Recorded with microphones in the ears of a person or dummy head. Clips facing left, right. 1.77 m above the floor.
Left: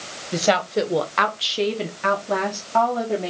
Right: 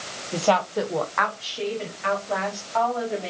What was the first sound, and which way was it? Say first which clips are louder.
A woman speaking: left 2 dB; 20° left (ahead or behind).